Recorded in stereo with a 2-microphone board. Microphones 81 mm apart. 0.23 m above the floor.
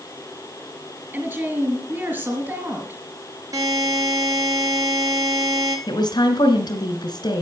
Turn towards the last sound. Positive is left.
turn(degrees=60)  # may be behind; listen again after turning